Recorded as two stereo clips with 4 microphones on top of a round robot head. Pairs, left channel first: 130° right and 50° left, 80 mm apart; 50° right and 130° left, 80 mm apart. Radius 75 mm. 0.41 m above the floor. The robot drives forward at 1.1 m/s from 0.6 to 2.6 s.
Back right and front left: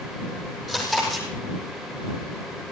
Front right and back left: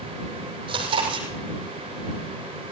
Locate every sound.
0.7 s chewing: 140° left, 8.5 m